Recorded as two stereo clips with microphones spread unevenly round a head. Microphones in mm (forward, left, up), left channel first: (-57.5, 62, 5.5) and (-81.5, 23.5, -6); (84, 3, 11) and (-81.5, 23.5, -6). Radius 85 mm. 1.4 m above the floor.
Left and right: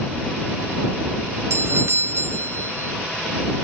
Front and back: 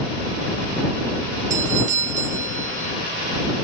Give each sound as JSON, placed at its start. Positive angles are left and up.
{"t": 1.5, "sound": "a doorbell", "azimuth_deg": -140}